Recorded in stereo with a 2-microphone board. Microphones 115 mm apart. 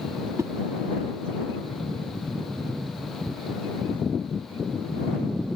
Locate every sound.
0.4 s a whoosh: 30° right (ahead or behind)